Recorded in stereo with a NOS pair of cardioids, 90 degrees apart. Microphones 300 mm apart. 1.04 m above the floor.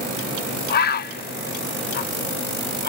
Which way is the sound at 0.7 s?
35° left.